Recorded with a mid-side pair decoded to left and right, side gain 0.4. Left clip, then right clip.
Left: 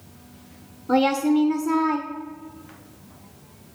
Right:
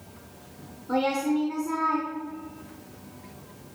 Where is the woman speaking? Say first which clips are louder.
Left 5 dB; 55° left, 0.8 m.